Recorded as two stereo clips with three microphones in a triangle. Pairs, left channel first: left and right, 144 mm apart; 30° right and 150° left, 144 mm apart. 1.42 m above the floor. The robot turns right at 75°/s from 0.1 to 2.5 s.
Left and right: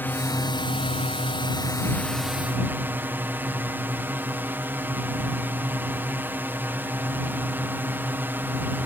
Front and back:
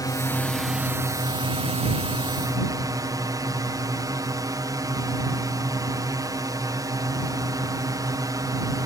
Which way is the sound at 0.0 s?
20° left.